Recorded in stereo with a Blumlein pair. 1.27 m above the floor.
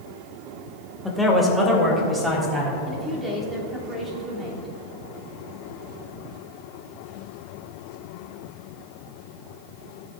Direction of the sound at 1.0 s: 5° left.